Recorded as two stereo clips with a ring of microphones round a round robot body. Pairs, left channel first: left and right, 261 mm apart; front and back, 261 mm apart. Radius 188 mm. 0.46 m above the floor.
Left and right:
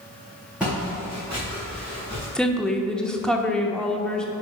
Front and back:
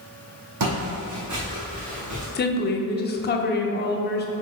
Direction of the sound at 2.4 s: 5° left.